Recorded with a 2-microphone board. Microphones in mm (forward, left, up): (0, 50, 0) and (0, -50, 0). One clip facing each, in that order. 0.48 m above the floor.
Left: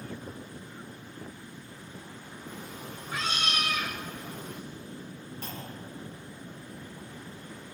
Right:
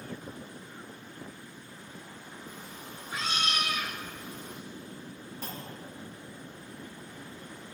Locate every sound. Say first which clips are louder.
2.5 s a cat meowing: left 6 dB; 65° left (ahead or behind), 4.5 m
5.4 s a clunk: even; 10° right (ahead or behind), 4.5 m